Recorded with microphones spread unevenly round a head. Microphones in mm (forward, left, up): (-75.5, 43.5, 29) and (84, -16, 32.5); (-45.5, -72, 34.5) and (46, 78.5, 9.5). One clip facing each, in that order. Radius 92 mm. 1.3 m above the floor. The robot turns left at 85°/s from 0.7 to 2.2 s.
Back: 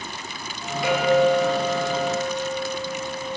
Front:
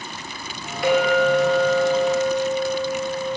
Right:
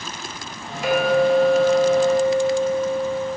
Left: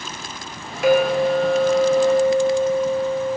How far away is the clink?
About 3 m.